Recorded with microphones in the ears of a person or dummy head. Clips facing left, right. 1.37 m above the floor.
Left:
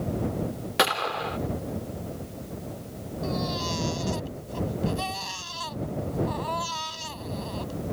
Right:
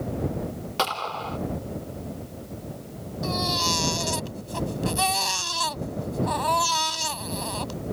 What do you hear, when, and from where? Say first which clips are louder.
0.8 s a gunshot: left 3 dB; 30° left (ahead or behind)
3.2 s a baby crying: right 2 dB; 85° right